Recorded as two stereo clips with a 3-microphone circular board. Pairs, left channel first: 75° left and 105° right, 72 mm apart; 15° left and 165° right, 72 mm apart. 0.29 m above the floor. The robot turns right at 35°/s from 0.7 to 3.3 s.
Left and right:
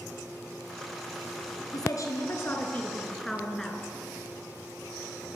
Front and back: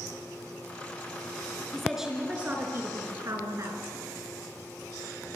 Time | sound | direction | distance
1.7 | a woman speaking | 105° left | 4 m